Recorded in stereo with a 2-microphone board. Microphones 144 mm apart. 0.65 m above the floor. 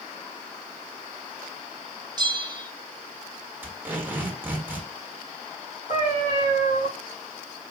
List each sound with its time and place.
2.2 s a bell: 30° right (ahead or behind), 0.6 m
3.6 s tape being pulled: 15° right (ahead or behind), 1.4 m
5.9 s a cat meowing: 60° left (ahead or behind), 2 m